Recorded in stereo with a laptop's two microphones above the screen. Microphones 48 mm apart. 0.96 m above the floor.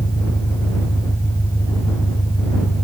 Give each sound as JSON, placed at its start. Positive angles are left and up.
{"t": 0.0, "sound": "an engine running", "side_deg": 75}